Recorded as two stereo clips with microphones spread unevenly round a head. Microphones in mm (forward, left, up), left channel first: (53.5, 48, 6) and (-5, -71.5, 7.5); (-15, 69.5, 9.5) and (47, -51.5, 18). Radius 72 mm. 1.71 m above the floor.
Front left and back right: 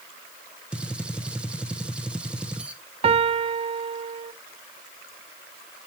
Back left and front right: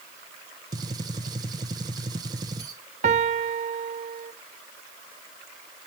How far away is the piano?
About 0.6 m.